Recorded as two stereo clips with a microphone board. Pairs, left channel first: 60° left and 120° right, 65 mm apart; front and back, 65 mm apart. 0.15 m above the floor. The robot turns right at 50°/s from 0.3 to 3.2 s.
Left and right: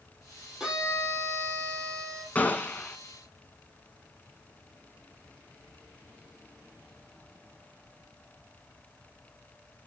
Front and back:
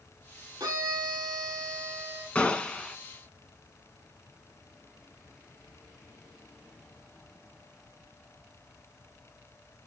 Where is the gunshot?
50° left, 1.1 m; by 3.0 s 80° left, 1.1 m.